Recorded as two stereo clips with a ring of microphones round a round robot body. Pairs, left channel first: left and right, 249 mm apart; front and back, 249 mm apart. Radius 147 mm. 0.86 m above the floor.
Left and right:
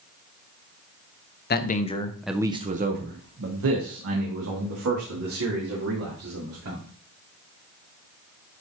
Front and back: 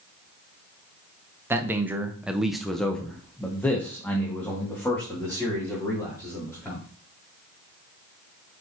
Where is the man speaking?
105° left, 0.9 m; by 6.8 s 80° right, 3.5 m.